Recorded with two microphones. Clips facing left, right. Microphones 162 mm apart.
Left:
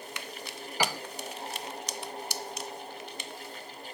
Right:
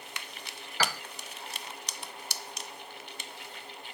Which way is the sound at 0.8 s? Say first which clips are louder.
Left 2 dB; 15° left (ahead or behind).